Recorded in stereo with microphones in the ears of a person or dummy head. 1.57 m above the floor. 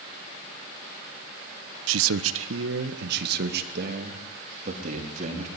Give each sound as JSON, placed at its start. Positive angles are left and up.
{"t": 1.9, "sound": "a man speaking", "side_deg": -75, "distance_m": 1.0}